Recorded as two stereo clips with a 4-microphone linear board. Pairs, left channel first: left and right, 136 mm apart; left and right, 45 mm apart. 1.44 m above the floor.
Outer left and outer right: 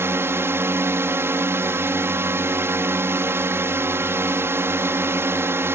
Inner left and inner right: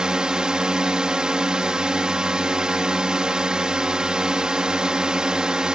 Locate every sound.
0.0 s a drone: 15° right (ahead or behind)